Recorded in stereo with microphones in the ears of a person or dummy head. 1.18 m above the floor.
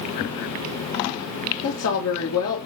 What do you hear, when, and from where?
1.6 s a woman speaking: 65° left (ahead or behind), 1.4 m